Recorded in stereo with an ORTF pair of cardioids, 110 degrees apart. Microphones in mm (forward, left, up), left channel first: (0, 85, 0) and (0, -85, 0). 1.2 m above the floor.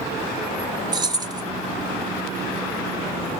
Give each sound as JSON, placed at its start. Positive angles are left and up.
{"t": 0.9, "sound": "keys jangling", "azimuth_deg": -25, "distance_m": 0.6}